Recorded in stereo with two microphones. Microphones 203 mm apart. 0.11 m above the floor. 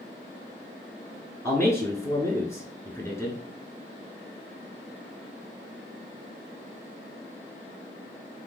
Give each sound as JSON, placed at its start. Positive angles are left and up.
{"t": 1.4, "sound": "a man speaking", "side_deg": 15, "distance_m": 1.1}